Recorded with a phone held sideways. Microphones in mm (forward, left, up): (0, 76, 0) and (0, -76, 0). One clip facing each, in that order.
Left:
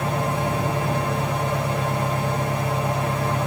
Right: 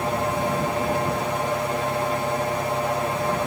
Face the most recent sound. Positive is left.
turn(degrees=45)  # may be behind; listen again after turning